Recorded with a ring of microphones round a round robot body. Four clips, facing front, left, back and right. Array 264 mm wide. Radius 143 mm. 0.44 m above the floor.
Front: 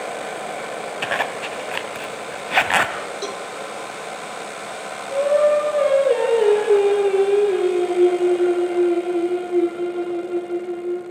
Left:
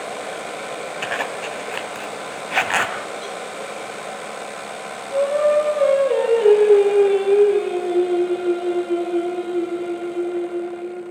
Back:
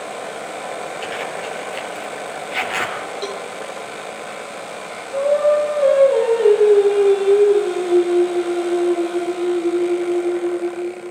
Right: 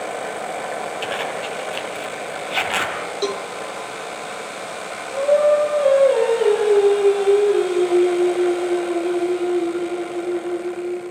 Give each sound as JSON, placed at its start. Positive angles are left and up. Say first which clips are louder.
{"t": 1.0, "sound": "a zipper", "louder": "right 1 dB, front 2 dB", "azimuth_deg": 20, "distance_m": 1.8}
{"t": 3.2, "sound": "a cowbell", "louder": "right 7 dB, back 2 dB", "azimuth_deg": -85, "distance_m": 0.7}
{"t": 5.1, "sound": "singing", "louder": "right 1 dB, back 1 dB", "azimuth_deg": 15, "distance_m": 8.5}